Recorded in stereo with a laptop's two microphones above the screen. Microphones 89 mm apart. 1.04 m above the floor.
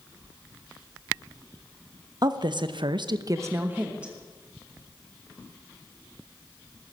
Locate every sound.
2.2 s a woman speaking: 50° right (ahead or behind), 1.2 m; by 4.1 s 10° right (ahead or behind), 1.5 m